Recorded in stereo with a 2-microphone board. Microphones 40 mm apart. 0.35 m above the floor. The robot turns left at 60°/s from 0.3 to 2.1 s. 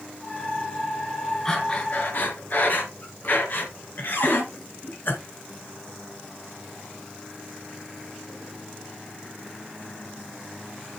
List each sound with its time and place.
1.4 s breathing: 10° left (ahead or behind), 2.5 m; by 5.1 s 50° left (ahead or behind), 2.5 m
4.1 s a cupboard door: 65° left (ahead or behind), 5.5 m